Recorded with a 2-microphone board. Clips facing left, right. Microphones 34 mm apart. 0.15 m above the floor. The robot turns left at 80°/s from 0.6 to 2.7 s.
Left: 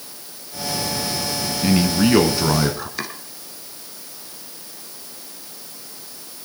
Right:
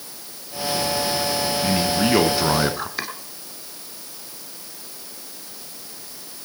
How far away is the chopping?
About 2.5 m.